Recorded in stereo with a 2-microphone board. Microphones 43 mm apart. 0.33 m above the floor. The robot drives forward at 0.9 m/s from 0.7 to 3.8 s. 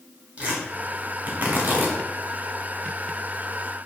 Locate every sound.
0.4 s tearing paper: 30° right (ahead or behind), 1.5 m; by 2.0 s 40° right (ahead or behind), 1.1 m